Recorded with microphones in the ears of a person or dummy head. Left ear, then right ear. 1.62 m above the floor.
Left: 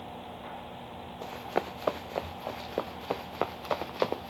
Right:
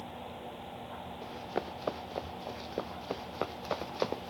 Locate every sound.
1.2 s running footsteps: 35° left (ahead or behind); by 4.3 s 15° left (ahead or behind)